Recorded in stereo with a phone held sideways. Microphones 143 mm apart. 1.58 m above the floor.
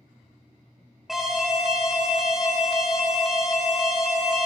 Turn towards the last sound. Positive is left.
turn(degrees=-5)  # may be behind; listen again after turning